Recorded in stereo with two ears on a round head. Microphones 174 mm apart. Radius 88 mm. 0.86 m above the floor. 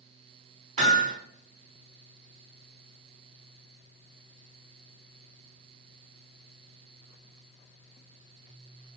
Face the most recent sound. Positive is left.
turn(degrees=-40)  # may be behind; listen again after turning